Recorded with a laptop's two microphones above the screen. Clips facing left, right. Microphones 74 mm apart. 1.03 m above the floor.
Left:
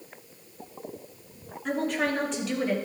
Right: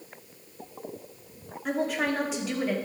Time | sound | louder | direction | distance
1.6 | a woman speaking | even | 5° right (ahead or behind) | 3 m